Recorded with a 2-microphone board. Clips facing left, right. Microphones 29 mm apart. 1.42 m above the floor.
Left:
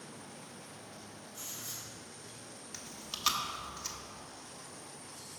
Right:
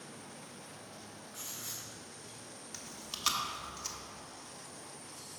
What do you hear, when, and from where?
1.3 s writing: 85° right, 3.5 m
2.7 s chewing: 10° left (ahead or behind), 1.1 m